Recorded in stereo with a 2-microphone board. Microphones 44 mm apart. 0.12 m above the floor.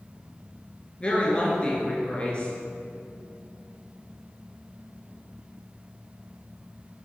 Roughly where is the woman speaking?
Left.